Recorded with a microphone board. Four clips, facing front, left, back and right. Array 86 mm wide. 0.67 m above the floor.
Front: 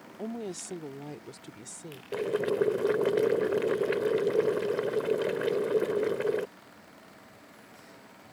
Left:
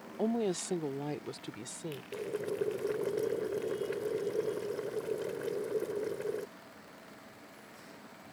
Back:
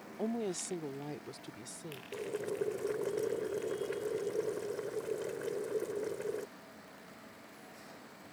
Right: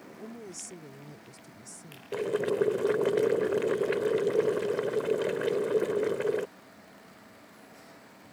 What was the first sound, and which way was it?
A woman speaking, 95° left.